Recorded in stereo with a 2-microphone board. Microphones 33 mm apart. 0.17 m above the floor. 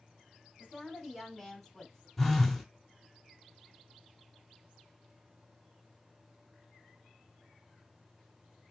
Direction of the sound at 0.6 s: 30° right (ahead or behind).